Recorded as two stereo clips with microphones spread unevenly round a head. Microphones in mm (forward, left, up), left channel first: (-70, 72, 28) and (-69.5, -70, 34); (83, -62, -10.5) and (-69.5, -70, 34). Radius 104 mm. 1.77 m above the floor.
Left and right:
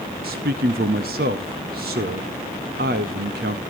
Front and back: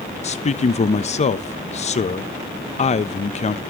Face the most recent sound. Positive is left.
turn(degrees=-45)